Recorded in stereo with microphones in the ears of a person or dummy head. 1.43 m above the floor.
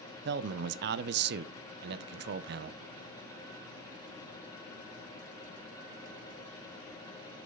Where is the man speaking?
65° right (ahead or behind), 0.7 m.